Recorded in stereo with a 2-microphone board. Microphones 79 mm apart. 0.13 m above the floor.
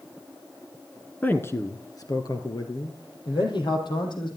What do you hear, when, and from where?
1.2 s a man speaking: 20° left (ahead or behind), 1.4 m; by 4.3 s 75° left (ahead or behind), 5.5 m